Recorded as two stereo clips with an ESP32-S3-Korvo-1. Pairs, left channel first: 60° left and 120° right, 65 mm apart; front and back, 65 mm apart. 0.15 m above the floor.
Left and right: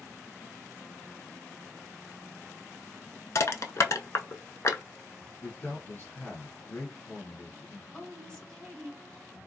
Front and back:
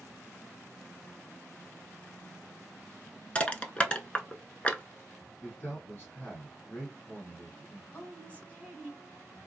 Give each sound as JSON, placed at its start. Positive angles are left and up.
{"t": 3.4, "sound": "crushing", "azimuth_deg": 65, "distance_m": 0.5}
{"t": 5.4, "sound": "a man speaking", "azimuth_deg": 50, "distance_m": 1.6}
{"t": 7.9, "sound": "a woman speaking", "azimuth_deg": 5, "distance_m": 1.5}